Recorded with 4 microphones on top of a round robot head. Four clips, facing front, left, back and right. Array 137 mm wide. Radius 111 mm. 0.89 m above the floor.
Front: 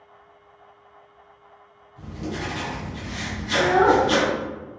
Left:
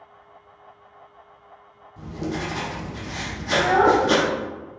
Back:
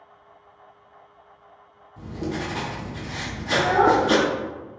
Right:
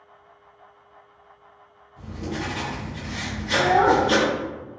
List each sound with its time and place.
2.0 s writing: 135° left, 0.6 m
3.5 s a child speaking: 125° left, 1.2 m